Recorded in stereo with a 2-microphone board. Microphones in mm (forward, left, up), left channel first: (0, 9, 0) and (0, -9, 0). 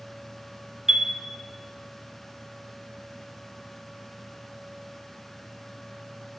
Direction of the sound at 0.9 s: 40° right (ahead or behind).